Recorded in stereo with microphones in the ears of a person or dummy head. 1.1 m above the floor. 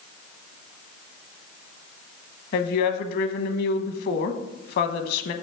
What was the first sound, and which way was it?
A woman speaking, 55° left (ahead or behind).